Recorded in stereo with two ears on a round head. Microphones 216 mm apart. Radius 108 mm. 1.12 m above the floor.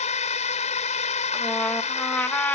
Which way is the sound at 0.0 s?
30° left (ahead or behind).